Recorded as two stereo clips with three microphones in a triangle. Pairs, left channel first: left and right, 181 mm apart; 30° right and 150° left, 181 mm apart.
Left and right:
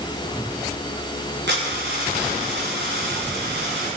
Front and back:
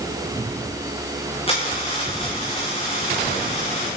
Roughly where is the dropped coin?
Right.